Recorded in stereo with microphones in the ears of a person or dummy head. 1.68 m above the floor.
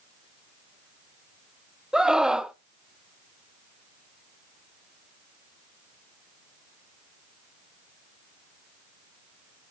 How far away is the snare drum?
No snare drum in this recording.